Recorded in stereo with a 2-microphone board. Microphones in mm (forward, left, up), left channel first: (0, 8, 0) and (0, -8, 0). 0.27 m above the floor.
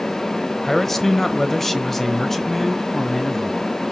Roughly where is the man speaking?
Centre.